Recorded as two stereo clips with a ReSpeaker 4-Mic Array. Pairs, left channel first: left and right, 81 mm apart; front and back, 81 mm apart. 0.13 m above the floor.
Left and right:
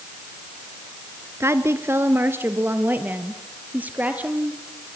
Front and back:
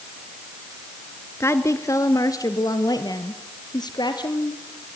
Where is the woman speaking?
45° right, 1.6 m; by 4.6 s 20° right, 3.5 m.